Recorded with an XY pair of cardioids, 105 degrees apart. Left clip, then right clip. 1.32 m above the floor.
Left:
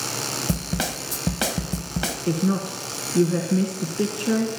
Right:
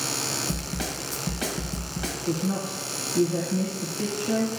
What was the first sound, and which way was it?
A snare drum, 65° left.